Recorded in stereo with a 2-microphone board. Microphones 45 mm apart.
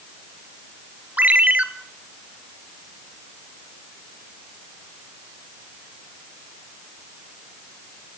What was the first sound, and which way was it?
A ringtone, 35° right (ahead or behind).